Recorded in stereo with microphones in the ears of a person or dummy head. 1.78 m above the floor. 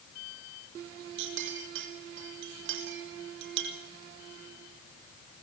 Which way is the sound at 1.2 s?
65° right (ahead or behind).